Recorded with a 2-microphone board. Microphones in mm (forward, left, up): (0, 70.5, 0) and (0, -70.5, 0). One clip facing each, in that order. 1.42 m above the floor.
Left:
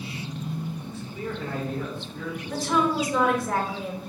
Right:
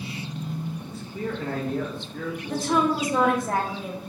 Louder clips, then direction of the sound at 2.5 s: Right 1 dB; 50° right (ahead or behind).